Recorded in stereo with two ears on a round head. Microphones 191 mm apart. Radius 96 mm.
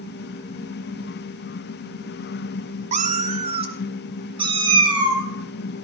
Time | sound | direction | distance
2.9 | a cat meowing | 35° right (ahead or behind) | 0.9 m